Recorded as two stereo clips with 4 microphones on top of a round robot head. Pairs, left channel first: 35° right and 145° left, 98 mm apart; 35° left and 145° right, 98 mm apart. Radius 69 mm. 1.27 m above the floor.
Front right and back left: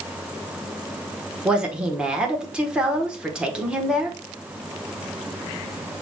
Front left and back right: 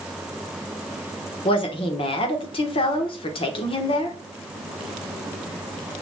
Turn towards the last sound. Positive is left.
turn(degrees=65)